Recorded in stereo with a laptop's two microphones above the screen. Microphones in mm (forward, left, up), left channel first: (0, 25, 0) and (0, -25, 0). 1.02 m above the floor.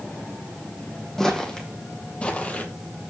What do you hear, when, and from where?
1.2 s footsteps: 10° left (ahead or behind), 2.5 m; by 3.1 s 40° left (ahead or behind), 1.6 m